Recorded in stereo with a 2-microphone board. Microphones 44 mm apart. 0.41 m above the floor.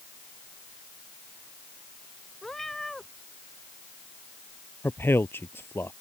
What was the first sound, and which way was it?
A cat meowing, 10° left (ahead or behind).